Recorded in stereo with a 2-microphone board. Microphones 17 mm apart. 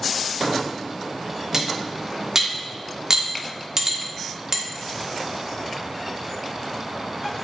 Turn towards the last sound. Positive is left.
turn(degrees=-35)  # may be behind; listen again after turning